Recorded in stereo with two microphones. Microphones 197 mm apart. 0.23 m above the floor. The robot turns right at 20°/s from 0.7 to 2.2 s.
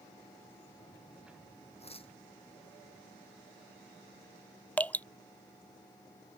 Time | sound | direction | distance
1.8 | tearing paper | 30° left (ahead or behind) | ?
4.8 | dripping | 10° left (ahead or behind) | ?